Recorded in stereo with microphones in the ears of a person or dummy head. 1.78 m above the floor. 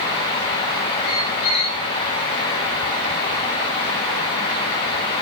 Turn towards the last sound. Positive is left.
turn(degrees=50)  # may be behind; listen again after turning